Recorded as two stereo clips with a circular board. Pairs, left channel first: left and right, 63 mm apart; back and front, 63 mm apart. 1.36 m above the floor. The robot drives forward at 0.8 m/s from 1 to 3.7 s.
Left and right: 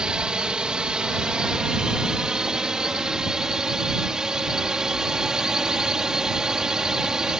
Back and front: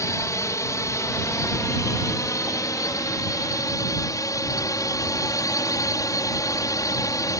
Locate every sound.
0.0 s a drone: 165° right; by 7.4 s 170° right